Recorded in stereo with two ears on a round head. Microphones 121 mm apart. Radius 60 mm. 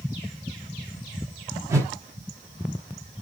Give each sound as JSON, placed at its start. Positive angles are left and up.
{"t": 1.7, "sound": "a whoosh", "side_deg": -20, "distance_m": 0.9}